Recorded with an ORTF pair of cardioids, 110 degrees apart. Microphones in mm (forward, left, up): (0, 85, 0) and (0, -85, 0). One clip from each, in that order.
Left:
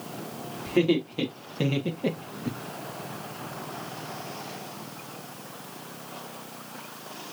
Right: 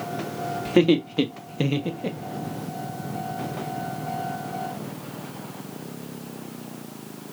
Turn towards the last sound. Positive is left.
turn(degrees=35)